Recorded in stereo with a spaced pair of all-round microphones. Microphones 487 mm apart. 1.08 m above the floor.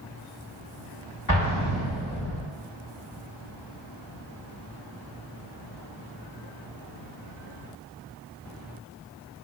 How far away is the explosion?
About 1.8 m.